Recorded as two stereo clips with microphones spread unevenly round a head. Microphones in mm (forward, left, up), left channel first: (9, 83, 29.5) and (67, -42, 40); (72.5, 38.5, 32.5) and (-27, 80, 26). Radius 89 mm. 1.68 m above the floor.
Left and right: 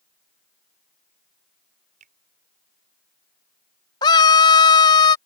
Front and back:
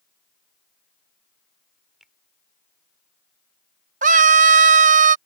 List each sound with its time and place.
2.0 s a finger snap: 115° right
4.0 s a scream: 175° right